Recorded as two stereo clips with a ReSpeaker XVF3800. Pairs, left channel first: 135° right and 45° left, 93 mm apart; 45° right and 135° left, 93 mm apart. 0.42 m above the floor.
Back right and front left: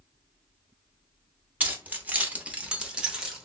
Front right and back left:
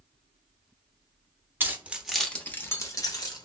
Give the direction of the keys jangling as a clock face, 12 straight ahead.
9 o'clock.